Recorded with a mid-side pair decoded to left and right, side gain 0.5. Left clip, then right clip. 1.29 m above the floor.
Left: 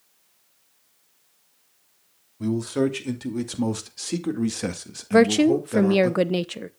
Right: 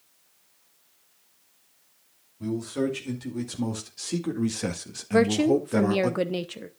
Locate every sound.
2.4 s a man speaking: 50° left, 3 m; by 6.1 s 20° right, 1.8 m
5.1 s a woman speaking: 35° left, 0.7 m